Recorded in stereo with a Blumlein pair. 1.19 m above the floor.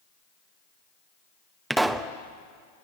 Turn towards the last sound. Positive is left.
turn(degrees=-10)